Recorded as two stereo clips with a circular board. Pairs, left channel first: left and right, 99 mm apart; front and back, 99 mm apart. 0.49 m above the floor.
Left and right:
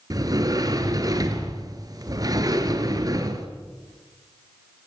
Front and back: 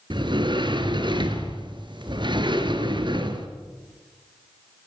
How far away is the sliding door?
About 2 m.